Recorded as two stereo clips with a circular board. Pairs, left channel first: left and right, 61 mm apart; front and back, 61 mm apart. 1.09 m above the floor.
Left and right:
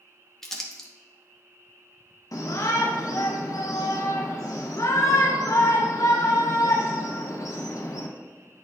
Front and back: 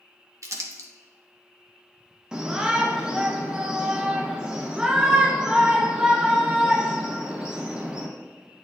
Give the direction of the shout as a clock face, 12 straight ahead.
9 o'clock.